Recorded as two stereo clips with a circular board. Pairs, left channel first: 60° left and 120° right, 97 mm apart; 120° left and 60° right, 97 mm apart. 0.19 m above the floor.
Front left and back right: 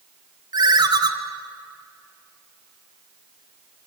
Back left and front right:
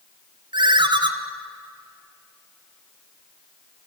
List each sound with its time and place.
0.5 s a ringtone: 85° right, 2 m